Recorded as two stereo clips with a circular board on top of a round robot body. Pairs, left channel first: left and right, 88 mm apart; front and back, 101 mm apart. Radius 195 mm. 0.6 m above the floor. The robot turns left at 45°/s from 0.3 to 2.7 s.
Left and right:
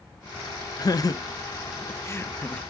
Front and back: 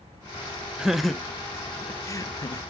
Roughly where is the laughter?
Left.